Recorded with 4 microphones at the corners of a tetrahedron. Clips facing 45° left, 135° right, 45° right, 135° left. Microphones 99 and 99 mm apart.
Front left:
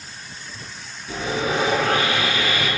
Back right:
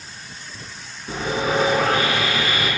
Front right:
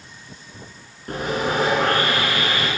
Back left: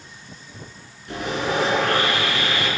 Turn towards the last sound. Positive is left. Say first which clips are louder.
# back right 1 dB, front right 1 dB
turn(degrees=-90)